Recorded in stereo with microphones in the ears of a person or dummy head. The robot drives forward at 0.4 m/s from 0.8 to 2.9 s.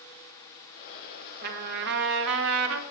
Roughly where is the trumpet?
Right.